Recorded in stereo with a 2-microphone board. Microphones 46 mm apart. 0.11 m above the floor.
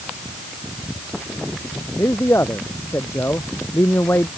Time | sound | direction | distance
2.0 | a man speaking | 70° left (ahead or behind) | ?